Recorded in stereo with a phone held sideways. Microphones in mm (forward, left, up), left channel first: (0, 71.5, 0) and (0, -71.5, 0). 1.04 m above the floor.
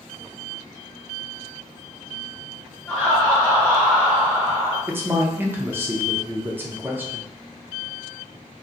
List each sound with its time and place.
2.9 s laughter: 10° left (ahead or behind), 1.4 m
4.9 s a man speaking: 15° right (ahead or behind), 0.5 m